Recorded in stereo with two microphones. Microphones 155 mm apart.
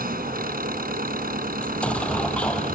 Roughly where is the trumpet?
No trumpet in this recording.